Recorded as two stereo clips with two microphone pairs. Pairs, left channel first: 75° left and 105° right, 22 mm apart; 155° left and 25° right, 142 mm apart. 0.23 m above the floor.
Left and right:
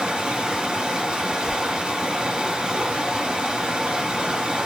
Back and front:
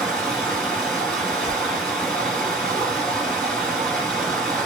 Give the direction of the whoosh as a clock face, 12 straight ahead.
4 o'clock.